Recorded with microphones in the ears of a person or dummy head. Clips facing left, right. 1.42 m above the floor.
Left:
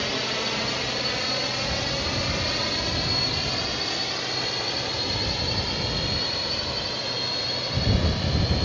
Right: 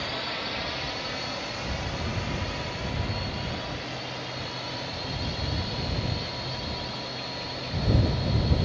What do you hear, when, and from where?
0.0 s a drone: 45° left (ahead or behind); by 8.7 s 80° left